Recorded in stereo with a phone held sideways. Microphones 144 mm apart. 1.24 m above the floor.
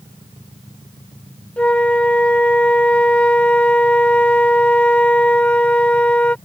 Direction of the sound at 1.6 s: 10° left (ahead or behind).